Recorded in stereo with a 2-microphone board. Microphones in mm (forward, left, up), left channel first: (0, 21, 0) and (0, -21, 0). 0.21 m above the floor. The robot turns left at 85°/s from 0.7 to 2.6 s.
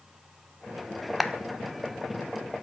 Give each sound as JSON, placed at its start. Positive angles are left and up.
{"t": 1.2, "sound": "a clap", "side_deg": 0, "distance_m": 0.9}